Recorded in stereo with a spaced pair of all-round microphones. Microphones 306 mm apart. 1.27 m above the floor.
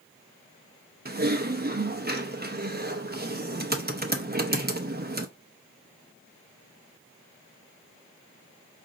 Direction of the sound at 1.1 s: 35° right (ahead or behind).